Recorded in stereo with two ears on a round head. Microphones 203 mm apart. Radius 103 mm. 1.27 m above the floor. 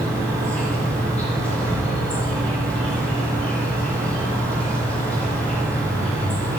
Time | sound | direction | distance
0.0 | an insect | 5° left (ahead or behind) | 2.5 m